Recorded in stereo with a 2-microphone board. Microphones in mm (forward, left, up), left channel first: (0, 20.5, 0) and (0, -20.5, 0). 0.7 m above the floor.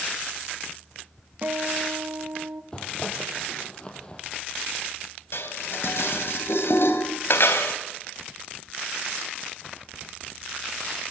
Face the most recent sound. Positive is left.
turn(degrees=65)  # may be behind; listen again after turning